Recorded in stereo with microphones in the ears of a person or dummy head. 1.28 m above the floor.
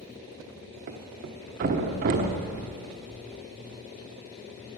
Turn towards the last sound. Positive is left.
turn(degrees=-50)  # may be behind; listen again after turning